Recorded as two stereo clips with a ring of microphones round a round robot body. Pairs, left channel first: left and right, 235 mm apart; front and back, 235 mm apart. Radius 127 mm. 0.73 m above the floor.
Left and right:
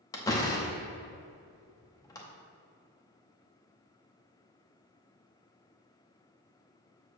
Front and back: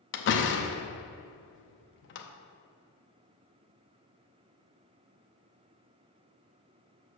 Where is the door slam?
15° left, 0.7 m.